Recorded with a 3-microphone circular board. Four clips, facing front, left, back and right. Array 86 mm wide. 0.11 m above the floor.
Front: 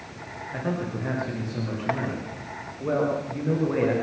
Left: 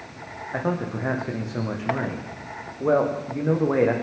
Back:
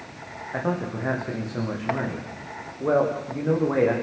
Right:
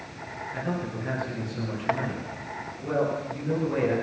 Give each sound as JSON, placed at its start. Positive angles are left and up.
{"t": 0.5, "sound": "a man speaking", "azimuth_deg": 110, "distance_m": 9.0}